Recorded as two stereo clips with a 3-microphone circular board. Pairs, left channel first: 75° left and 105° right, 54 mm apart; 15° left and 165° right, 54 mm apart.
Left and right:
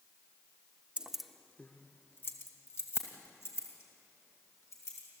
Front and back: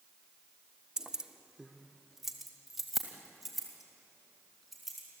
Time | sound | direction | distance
1.0 | keys jangling | 110° right | 0.7 m